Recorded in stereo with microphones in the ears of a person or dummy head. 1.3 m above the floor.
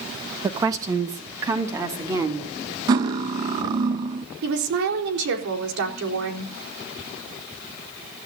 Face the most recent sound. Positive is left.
turn(degrees=-75)  # may be behind; listen again after turning